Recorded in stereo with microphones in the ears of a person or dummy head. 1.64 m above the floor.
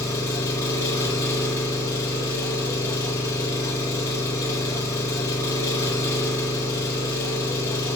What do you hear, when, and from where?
0.0 s an engine running: 15° left (ahead or behind), 0.8 m